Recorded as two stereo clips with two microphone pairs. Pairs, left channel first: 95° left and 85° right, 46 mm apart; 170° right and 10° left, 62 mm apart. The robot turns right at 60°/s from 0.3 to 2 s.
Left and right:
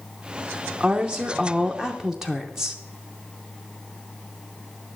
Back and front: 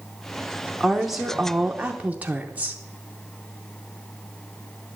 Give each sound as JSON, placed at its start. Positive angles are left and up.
{"t": 0.8, "sound": "a woman speaking", "azimuth_deg": -85, "distance_m": 0.7}